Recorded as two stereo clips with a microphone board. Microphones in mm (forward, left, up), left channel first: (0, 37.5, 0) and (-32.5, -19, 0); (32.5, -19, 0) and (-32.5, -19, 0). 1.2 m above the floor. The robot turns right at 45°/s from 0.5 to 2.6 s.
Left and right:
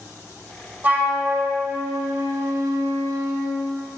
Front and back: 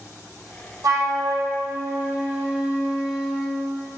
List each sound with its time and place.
0.8 s a flute: straight behind, 0.8 m; by 3.6 s 105° right, 0.8 m